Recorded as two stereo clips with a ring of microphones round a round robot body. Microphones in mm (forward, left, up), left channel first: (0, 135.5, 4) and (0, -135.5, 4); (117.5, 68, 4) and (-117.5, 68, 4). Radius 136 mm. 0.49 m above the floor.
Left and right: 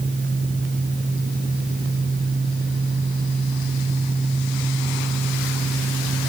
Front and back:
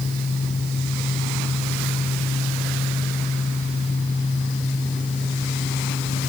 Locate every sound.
Only background noise.